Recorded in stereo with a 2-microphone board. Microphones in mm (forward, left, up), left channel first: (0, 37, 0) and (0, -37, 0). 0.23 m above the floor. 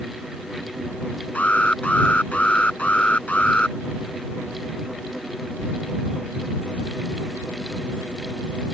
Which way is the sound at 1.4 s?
20° left (ahead or behind).